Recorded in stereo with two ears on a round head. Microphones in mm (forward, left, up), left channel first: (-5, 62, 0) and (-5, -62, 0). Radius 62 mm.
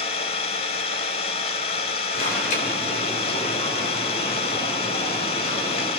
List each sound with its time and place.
0.0 s an engine running: 45° left (ahead or behind), 1.3 m
2.1 s an alarm: 65° left (ahead or behind), 3.5 m